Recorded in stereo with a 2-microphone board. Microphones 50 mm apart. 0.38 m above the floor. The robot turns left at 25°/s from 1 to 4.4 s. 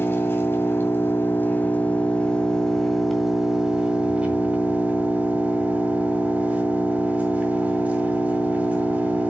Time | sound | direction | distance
0.0 | an engine running | 50° left | 1.9 m